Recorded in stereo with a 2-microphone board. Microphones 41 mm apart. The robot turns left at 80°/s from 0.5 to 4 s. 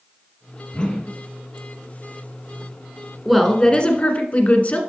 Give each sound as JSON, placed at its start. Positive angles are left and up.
{"t": 0.7, "sound": "a whoosh", "azimuth_deg": 60, "distance_m": 1.2}
{"t": 3.2, "sound": "a woman speaking", "azimuth_deg": -175, "distance_m": 1.5}